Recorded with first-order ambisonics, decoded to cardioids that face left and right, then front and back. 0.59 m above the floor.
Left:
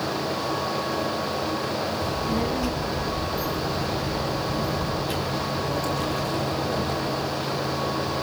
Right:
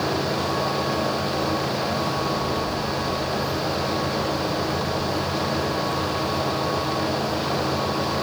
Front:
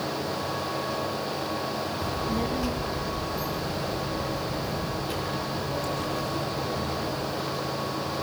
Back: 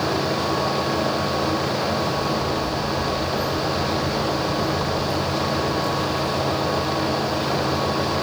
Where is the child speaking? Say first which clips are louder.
Right 2 dB, back 6 dB; 60° left, 7.5 m; by 7.3 s 85° left, 11 m.